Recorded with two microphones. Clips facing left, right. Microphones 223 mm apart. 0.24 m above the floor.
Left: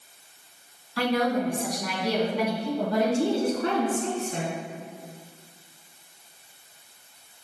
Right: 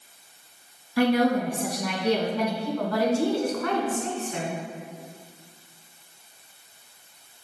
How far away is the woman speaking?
About 2 m.